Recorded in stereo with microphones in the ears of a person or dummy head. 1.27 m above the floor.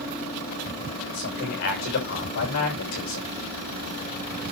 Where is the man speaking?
50° left (ahead or behind), 6 m.